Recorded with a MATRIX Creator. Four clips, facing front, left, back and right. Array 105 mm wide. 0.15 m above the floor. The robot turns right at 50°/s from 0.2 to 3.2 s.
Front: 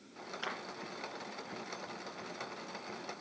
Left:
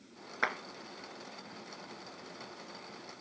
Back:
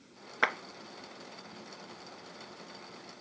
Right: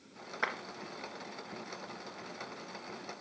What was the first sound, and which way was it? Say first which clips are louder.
A clap: left 2 dB, back 11 dB; 170° left.